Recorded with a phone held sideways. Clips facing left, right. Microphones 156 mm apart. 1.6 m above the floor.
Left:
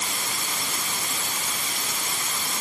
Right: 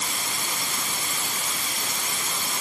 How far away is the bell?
I don't hear a bell.